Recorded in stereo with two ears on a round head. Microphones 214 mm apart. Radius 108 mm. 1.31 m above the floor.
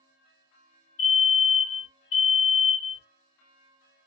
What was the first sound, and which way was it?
A fire alarm, 55° left (ahead or behind).